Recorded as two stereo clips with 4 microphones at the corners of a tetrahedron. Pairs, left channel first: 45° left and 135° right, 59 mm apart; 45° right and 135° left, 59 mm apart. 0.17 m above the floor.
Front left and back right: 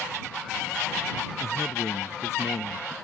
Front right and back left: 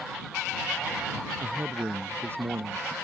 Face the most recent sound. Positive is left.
turn(degrees=90)